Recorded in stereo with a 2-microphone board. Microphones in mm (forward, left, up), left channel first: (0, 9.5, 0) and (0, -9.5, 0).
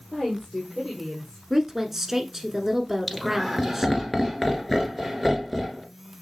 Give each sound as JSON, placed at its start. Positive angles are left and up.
{"t": 0.1, "sound": "a woman speaking", "side_deg": 40, "distance_m": 3.0}
{"t": 1.5, "sound": "a woman speaking", "side_deg": -15, "distance_m": 1.1}
{"t": 3.1, "sound": "laughter", "side_deg": 5, "distance_m": 1.4}